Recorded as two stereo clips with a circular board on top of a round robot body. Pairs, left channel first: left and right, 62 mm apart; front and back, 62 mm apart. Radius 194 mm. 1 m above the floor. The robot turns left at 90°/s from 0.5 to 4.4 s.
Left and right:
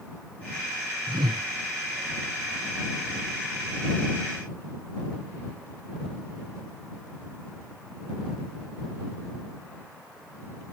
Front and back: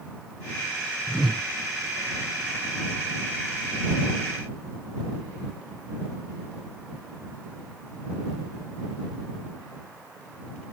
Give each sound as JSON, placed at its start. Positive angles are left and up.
{"t": 1.1, "sound": "a whoosh", "azimuth_deg": -70}